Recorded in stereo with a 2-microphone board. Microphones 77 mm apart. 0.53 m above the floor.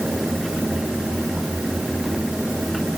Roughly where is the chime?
No chime in this recording.